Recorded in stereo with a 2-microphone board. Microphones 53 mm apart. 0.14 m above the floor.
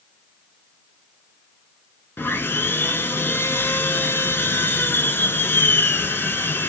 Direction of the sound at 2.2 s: 45° left (ahead or behind).